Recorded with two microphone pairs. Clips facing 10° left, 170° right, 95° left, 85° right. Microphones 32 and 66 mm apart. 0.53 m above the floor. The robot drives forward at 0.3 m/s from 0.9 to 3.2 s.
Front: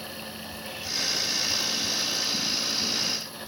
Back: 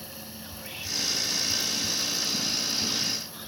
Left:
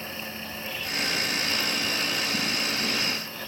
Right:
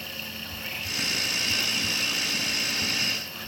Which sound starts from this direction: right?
Whispering, at 0.4 s.